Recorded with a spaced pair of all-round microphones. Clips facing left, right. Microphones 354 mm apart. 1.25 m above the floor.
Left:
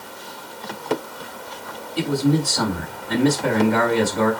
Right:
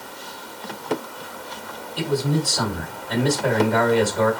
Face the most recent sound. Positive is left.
turn(degrees=30)  # may be behind; listen again after turning